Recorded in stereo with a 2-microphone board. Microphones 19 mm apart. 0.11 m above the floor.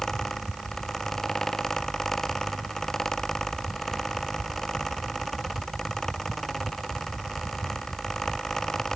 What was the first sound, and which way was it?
Only background noise.